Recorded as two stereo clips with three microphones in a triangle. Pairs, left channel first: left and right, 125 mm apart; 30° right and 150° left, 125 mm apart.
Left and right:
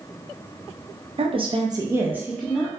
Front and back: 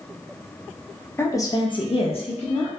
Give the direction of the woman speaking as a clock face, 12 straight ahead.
3 o'clock.